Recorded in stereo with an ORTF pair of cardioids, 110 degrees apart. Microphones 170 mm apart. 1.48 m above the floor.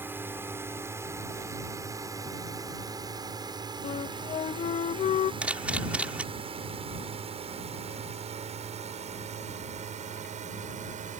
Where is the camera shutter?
10° right.